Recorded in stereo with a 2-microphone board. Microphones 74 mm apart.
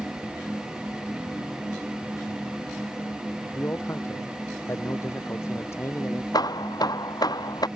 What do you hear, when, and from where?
3.5 s a man speaking: 40° left (ahead or behind)
6.3 s hammering: 70° left (ahead or behind)